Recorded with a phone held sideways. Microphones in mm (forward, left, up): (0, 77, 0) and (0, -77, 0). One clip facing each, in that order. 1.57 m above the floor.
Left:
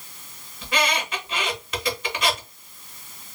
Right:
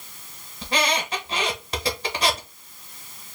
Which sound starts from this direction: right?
A squeak, at 0.6 s.